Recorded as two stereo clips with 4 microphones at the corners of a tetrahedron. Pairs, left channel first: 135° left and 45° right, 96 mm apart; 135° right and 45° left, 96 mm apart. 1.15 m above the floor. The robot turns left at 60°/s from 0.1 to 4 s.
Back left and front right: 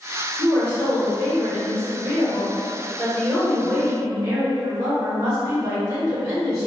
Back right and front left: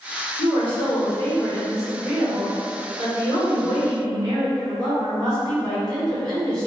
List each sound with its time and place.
0.4 s a woman speaking: 140° right, 1.5 m; by 6.7 s straight ahead, 1.5 m